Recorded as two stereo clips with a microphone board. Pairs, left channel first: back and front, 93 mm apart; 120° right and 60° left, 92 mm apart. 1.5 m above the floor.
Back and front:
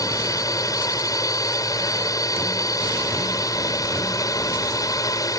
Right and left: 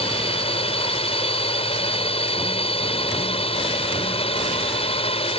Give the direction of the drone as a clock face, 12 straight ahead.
4 o'clock.